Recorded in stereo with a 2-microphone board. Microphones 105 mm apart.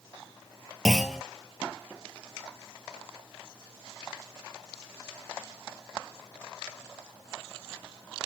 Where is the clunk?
Centre (ahead or behind), 0.7 m.